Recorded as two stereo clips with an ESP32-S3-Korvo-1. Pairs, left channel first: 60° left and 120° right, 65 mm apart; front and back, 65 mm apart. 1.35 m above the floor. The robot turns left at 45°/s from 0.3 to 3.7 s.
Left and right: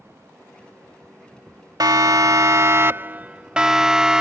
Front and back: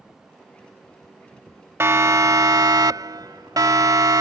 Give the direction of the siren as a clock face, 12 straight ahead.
4 o'clock.